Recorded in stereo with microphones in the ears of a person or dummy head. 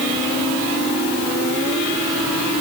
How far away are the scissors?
I don't hear scissors.